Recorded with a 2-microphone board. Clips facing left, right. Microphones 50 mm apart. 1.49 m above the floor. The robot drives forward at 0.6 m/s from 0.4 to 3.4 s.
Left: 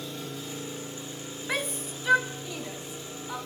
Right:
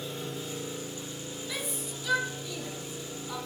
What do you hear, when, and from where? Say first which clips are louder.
0.0 s an engine running: even; 15° right (ahead or behind), 3 m; by 3.5 s 10° right (ahead or behind), 4.5 m
1.5 s a shout: left 7 dB; 55° left (ahead or behind), 0.5 m; by 3.4 s 20° left (ahead or behind), 1.5 m